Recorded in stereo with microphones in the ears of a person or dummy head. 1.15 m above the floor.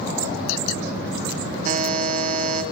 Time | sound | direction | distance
1.6 | a buzzer | 45° right (ahead or behind) | 2.0 m